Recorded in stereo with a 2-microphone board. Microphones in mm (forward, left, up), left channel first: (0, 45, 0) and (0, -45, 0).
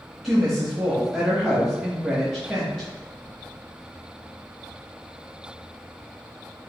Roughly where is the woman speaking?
Centre.